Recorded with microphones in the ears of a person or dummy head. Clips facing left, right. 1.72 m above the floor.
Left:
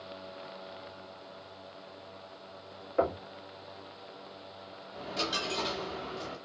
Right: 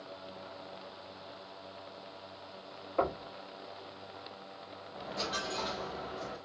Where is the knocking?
15° left (ahead or behind), 2.0 m.